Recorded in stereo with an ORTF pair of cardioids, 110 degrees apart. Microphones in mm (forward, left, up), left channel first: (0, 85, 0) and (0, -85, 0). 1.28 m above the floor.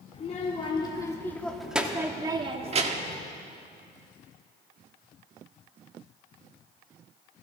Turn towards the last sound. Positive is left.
turn(degrees=-50)